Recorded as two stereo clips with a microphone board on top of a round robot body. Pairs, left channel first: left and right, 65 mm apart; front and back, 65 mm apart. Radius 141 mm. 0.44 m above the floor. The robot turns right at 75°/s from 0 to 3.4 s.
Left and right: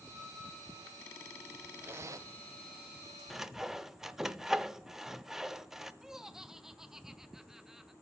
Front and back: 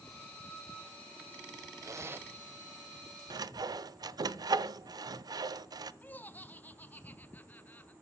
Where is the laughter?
15° right, 1.4 m.